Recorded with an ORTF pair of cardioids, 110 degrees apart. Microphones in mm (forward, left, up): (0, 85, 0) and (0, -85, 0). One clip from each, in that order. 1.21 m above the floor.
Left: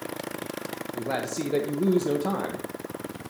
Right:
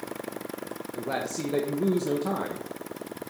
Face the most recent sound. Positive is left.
turn(degrees=10)